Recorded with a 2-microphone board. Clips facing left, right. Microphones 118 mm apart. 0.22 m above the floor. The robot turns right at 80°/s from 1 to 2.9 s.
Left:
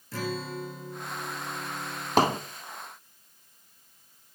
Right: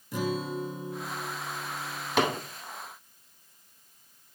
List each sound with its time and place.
0.1 s a guitar: 15° right, 3 m; by 2.4 s 95° left, 3 m
2.2 s hammering: 40° left (ahead or behind), 1.2 m; by 2.4 s 25° left (ahead or behind), 1.2 m